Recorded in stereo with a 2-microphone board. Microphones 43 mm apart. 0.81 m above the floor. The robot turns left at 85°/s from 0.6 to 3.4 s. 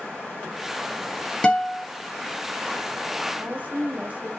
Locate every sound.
1.4 s a guitar: 30° left, 1.3 m; by 1.9 s 5° right, 1.3 m
3.4 s a woman speaking: 35° right (ahead or behind), 1.0 m; by 4.3 s 40° right (ahead or behind), 1.0 m